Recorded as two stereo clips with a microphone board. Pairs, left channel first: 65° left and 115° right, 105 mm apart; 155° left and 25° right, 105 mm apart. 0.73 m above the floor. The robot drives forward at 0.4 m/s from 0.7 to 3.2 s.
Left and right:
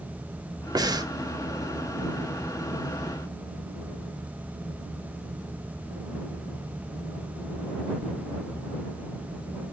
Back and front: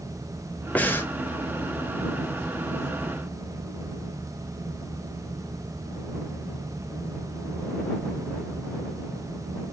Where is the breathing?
135° right, 0.5 m; by 1.1 s 145° right, 0.6 m.